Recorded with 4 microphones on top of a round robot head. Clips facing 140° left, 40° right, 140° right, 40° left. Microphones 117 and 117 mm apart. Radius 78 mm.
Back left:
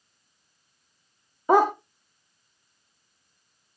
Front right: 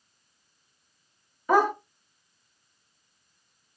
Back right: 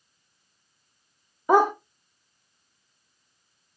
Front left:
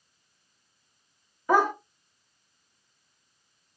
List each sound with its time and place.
1.5 s a dog barking: 170° left, 0.5 m